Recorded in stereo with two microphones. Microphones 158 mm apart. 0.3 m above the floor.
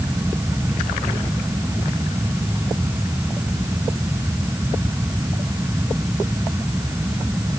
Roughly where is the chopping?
No chopping in this recording.